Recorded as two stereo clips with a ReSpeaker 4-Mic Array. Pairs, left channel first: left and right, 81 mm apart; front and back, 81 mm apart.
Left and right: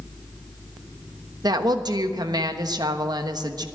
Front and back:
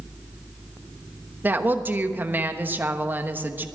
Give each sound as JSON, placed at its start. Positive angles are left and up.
{"t": 1.4, "sound": "a woman speaking", "azimuth_deg": -115, "distance_m": 1.1}